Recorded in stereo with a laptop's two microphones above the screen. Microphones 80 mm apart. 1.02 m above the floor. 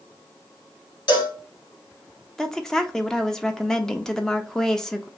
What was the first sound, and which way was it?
A cowbell, 60° left (ahead or behind).